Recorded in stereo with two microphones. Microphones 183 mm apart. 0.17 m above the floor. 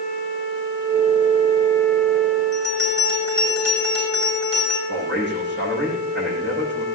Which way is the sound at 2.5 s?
70° right (ahead or behind).